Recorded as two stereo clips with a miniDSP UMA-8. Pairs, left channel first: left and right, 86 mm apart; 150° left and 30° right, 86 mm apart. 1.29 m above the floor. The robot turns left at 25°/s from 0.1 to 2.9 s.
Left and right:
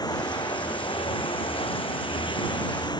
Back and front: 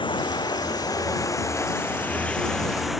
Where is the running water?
130° left; by 3.0 s 60° left.